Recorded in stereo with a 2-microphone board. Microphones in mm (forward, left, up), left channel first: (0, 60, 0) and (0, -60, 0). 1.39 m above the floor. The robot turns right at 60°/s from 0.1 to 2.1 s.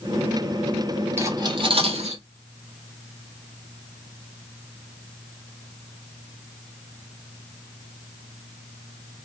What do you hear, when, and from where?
1.2 s cutlery clinking: 20° right (ahead or behind), 1.5 m; by 2.2 s 65° right (ahead or behind), 1.5 m